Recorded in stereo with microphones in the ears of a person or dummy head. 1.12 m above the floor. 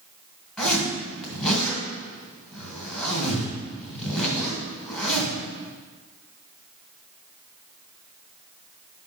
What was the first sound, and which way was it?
A zipper, centre (ahead or behind).